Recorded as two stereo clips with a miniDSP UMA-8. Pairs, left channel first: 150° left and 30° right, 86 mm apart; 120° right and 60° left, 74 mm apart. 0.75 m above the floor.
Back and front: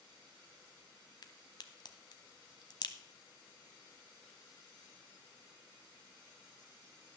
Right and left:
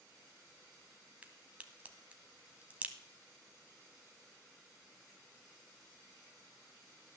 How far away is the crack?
About 1.0 m.